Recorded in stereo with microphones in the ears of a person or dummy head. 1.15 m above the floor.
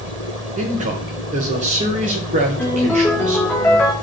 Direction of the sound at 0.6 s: 40° right (ahead or behind).